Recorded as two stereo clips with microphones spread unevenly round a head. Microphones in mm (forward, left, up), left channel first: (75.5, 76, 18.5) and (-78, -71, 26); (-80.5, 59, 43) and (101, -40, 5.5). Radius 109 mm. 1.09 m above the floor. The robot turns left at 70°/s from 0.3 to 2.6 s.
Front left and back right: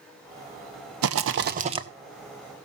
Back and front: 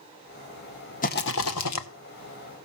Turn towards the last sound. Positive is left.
turn(degrees=100)